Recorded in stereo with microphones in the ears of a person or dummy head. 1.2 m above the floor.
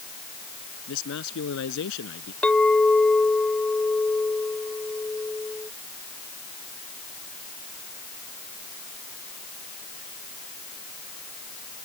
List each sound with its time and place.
0.9 s a man speaking: 70° left (ahead or behind)
2.4 s a clink: centre (ahead or behind)